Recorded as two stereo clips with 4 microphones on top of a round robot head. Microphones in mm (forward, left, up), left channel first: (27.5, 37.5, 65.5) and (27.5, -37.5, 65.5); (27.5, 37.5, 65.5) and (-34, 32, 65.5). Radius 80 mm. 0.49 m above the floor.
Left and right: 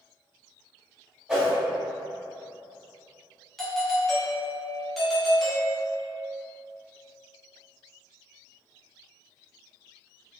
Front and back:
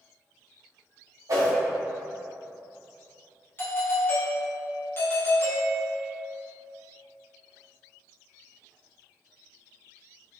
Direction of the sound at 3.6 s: 5° left.